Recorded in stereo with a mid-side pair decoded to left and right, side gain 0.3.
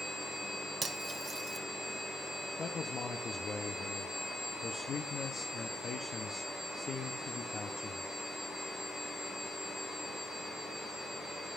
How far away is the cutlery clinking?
About 1.1 m.